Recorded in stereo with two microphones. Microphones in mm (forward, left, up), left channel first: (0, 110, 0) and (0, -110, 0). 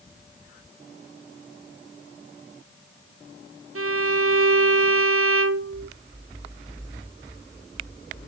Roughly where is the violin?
Right.